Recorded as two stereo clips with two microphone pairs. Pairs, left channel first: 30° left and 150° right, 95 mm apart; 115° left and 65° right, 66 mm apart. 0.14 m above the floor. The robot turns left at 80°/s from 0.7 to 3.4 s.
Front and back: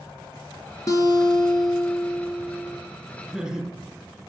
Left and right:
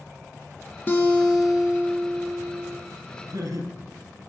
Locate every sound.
0.9 s a guitar: 65° left, 1.2 m; by 2.8 s 85° right, 1.2 m
3.3 s laughter: 65° right, 3.5 m; by 3.7 s 75° right, 3.5 m